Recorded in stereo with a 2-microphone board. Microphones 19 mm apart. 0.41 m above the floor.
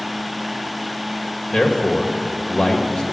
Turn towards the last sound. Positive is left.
turn(degrees=40)  # may be behind; listen again after turning